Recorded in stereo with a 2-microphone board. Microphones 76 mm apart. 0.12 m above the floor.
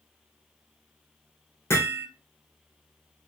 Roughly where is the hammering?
Left.